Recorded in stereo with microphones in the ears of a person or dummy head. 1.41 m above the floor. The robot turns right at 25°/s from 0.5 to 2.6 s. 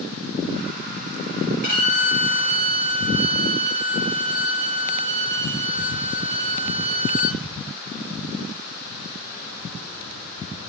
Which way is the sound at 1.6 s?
40° left (ahead or behind).